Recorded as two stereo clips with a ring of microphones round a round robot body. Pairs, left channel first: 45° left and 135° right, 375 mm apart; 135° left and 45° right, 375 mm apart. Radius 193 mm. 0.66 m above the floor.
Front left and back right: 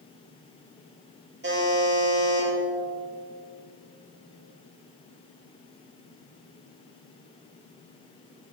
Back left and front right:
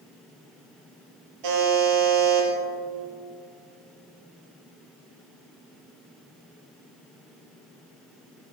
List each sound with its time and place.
1.4 s a buzzer: 70° right, 5 m